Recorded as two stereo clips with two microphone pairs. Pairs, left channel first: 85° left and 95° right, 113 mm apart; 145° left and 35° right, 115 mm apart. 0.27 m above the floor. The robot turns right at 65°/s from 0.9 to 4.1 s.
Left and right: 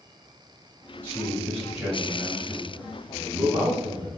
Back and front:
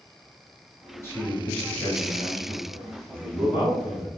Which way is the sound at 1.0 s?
135° left.